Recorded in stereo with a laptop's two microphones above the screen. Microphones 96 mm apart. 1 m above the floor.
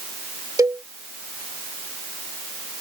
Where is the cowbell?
40° right (ahead or behind).